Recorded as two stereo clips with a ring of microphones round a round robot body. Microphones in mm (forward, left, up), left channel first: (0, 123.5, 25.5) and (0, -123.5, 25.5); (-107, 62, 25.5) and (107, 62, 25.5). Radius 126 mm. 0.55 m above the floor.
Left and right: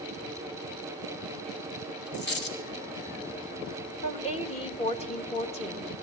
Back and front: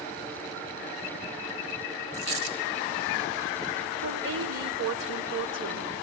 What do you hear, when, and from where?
2.1 s a dropped coin: 40° left, 2.5 m
4.0 s a woman speaking: 25° left, 2 m